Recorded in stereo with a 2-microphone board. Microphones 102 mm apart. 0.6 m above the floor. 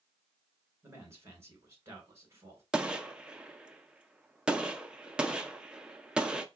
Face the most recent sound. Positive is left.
turn(degrees=-10)  # may be behind; listen again after turning